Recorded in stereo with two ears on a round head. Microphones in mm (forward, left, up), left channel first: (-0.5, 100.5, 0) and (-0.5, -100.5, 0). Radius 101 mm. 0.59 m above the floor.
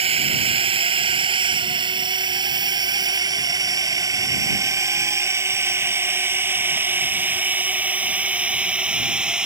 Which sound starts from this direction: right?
A drone, at 0.0 s.